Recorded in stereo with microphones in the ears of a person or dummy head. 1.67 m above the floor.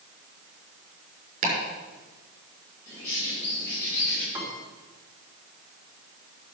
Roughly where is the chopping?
Right.